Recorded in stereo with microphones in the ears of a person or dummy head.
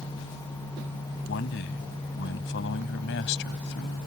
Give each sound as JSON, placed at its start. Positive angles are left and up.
{"t": 1.3, "sound": "a man speaking", "side_deg": 65}